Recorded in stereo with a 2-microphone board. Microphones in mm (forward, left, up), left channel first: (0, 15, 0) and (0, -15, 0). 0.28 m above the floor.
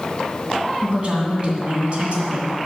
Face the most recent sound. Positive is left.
turn(degrees=-45)  # may be behind; listen again after turning